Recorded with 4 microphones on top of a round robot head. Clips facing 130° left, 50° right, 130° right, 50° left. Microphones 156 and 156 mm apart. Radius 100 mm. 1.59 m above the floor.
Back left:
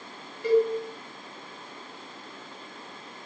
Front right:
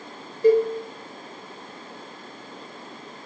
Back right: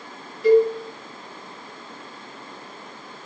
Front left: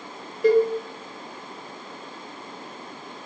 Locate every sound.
0.4 s a cowbell: 5° left, 0.6 m